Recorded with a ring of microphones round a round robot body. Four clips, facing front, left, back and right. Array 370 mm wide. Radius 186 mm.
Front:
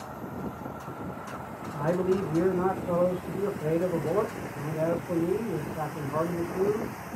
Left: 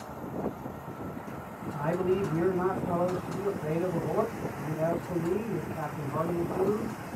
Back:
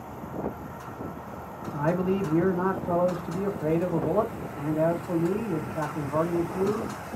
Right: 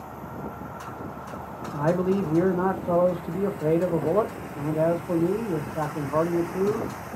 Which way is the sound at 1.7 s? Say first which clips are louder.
Right 5 dB, even; 95° right.